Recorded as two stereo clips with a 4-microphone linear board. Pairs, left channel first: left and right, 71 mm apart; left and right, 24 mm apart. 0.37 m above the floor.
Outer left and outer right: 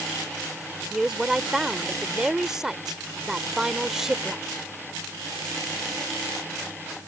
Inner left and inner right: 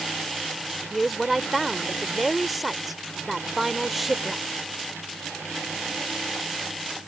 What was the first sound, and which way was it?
A woman speaking, 5° right (ahead or behind).